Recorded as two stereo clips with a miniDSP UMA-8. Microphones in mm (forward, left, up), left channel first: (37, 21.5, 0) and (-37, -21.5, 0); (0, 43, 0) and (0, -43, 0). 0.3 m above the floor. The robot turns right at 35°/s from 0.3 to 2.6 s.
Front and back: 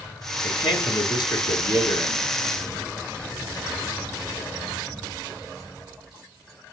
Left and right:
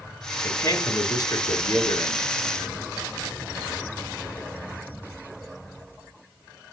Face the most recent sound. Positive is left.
turn(degrees=100)